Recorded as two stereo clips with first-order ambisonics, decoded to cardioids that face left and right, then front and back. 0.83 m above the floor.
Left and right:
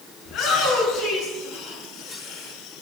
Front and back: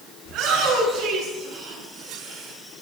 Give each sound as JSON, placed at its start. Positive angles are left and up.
{"t": 0.2, "sound": "a shout", "azimuth_deg": 140, "distance_m": 9.5}